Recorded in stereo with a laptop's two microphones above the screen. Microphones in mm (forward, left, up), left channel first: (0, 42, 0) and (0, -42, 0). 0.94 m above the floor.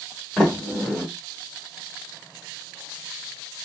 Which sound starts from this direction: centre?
A sliding door, at 0.4 s.